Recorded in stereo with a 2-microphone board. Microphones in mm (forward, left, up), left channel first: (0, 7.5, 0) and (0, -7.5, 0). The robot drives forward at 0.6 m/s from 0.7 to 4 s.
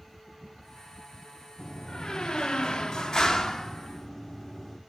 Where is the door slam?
45° left (ahead or behind), 1.0 m; by 4.8 s 35° left (ahead or behind), 1.2 m.